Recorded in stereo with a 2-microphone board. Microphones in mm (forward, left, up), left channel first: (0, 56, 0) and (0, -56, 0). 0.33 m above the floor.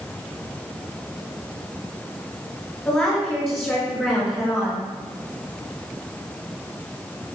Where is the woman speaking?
20° left (ahead or behind), 4.5 m; by 4.8 s 25° left (ahead or behind), 3.5 m.